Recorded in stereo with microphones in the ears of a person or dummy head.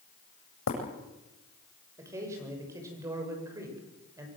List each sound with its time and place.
0.7 s breaking glass: 75° left (ahead or behind), 7.5 m
2.0 s a man speaking: 20° right (ahead or behind), 7 m